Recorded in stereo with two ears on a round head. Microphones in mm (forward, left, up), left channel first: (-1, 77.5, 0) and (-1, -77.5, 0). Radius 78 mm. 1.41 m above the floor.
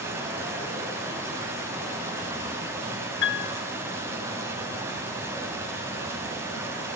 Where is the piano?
70° left (ahead or behind), 2.5 m.